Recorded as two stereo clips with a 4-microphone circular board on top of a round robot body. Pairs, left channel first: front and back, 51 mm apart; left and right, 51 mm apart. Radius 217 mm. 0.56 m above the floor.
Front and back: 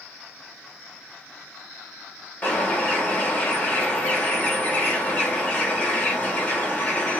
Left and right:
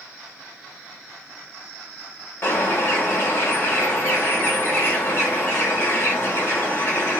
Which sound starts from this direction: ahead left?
A bird, at 2.4 s.